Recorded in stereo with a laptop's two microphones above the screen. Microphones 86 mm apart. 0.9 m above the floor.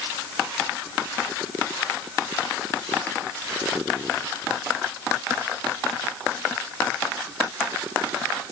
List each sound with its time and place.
Only background noise.